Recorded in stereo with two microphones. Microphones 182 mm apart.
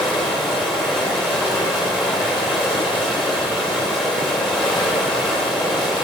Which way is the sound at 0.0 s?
Centre (ahead or behind).